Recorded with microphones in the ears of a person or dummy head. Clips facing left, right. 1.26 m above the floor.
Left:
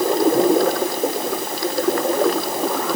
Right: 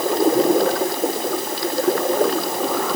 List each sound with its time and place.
Only background noise.